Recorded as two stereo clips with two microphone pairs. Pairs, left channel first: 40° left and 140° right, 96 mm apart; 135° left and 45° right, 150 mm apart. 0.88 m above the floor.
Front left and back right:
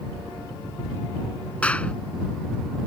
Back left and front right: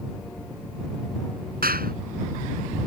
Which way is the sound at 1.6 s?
35° right.